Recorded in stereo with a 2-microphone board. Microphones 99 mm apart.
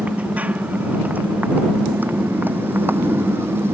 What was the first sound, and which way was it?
A motorcycle, 15° right (ahead or behind).